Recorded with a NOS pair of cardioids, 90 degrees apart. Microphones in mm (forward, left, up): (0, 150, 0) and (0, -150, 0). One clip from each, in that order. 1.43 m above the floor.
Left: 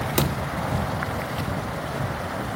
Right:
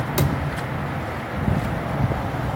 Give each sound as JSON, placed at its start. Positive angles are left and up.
{"t": 0.2, "sound": "a thud", "azimuth_deg": 30, "distance_m": 2.5}